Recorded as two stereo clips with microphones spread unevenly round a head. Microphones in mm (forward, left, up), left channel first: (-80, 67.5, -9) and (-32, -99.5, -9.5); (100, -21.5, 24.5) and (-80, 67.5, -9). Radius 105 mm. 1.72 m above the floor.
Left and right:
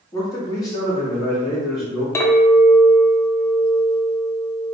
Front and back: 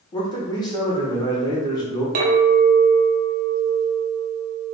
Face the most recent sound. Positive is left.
turn(degrees=170)